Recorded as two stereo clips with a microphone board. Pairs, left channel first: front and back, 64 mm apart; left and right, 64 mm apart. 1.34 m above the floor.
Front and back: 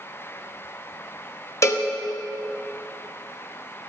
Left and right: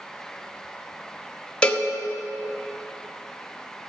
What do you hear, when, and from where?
1.6 s a cowbell: 20° left, 0.9 m